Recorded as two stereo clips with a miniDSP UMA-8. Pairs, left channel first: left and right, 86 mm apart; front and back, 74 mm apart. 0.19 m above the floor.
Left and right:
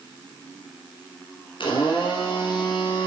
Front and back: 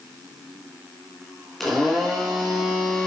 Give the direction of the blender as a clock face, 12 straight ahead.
9 o'clock.